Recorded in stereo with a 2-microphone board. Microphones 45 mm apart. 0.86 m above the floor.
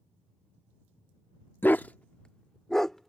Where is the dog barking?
50° left (ahead or behind); by 3.1 s centre (ahead or behind).